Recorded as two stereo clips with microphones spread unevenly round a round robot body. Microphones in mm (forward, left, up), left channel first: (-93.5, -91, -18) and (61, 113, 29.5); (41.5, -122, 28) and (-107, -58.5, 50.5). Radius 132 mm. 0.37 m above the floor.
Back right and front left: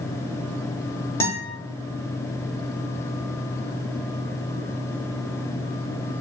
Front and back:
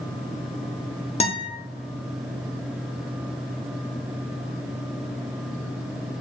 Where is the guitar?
55° right, 0.8 m.